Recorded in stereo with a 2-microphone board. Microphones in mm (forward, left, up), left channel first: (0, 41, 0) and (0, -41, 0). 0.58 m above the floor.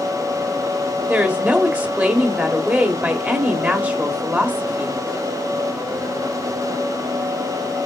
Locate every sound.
1.1 s a woman speaking: 20° right (ahead or behind), 1.1 m